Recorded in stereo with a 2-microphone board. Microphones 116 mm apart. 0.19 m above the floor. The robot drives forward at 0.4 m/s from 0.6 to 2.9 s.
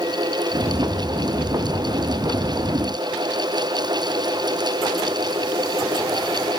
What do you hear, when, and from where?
Only background noise.